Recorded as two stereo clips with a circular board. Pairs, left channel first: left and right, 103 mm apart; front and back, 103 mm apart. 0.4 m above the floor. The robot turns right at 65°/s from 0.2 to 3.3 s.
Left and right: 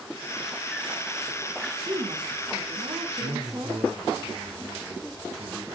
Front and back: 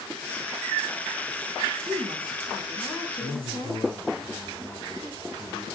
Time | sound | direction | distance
1.9 | a woman speaking | 135° right | 4 m
3.2 | a man speaking | 75° right | 5 m